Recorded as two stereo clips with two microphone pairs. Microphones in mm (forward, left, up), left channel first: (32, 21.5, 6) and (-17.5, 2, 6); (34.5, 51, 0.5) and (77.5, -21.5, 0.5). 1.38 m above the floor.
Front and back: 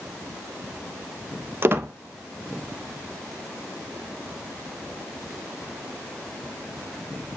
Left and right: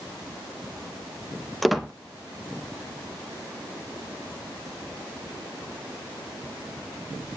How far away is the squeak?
About 0.7 m.